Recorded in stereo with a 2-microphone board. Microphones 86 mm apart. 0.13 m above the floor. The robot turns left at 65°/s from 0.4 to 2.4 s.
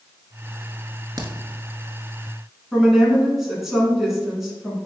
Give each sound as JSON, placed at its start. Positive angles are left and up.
{"t": 1.2, "sound": "a crack", "side_deg": -45, "distance_m": 0.6}
{"t": 2.7, "sound": "a woman speaking", "side_deg": -5, "distance_m": 1.6}